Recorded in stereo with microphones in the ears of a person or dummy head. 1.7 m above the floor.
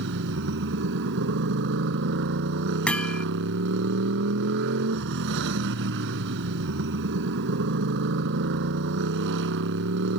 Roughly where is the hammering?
Centre.